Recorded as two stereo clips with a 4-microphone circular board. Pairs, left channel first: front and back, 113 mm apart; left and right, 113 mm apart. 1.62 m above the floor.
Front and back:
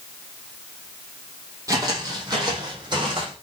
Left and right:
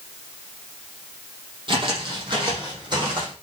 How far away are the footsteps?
About 3.5 m.